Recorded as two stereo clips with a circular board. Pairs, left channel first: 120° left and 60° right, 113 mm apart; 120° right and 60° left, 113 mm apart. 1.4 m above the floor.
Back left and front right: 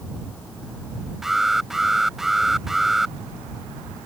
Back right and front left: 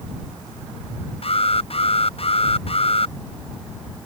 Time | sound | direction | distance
1.2 | an alarm | 150° right | ?